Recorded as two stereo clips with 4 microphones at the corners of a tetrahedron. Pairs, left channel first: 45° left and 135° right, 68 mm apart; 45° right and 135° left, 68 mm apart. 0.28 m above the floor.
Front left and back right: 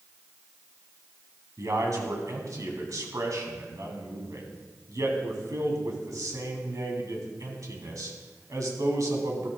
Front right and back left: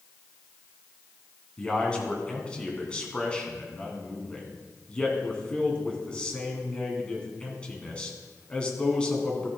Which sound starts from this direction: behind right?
A man speaking, at 1.6 s.